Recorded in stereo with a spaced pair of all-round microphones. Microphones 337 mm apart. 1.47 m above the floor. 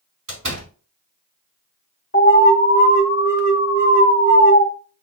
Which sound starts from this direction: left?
An alarm, at 2.1 s.